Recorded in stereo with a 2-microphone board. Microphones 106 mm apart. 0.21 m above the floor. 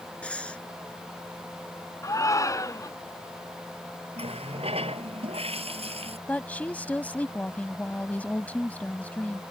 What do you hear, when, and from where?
0.2 s breathing: 10° left (ahead or behind)
2.0 s a shout: 30° left (ahead or behind)
4.2 s a running tap: 70° right (ahead or behind)
6.3 s a woman speaking: 15° left (ahead or behind)